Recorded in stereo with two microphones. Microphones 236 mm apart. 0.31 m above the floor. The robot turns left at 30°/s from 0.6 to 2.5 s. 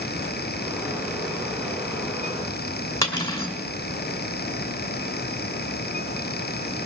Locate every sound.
3.0 s cutlery clinking: 10° left (ahead or behind), 2.5 m